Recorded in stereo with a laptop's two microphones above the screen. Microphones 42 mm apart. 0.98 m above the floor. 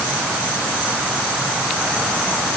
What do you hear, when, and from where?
Only background noise.